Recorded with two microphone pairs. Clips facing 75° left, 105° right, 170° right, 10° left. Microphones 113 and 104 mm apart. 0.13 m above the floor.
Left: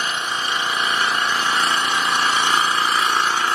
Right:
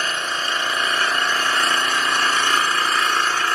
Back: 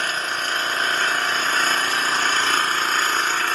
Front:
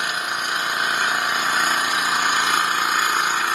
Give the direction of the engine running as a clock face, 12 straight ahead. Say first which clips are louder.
Left 1 dB, even; 11 o'clock.